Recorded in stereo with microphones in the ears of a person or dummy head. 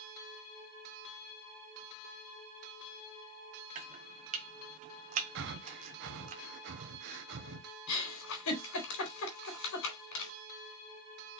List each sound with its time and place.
3.8 s chopping: 45° right (ahead or behind), 0.9 m
5.3 s breathing: 55° right (ahead or behind), 1.2 m
7.9 s a giggle: 70° left (ahead or behind), 4 m